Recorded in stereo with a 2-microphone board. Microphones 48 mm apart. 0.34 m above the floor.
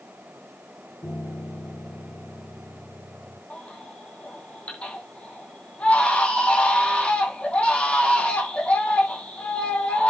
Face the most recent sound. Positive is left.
turn(degrees=25)  # may be behind; listen again after turning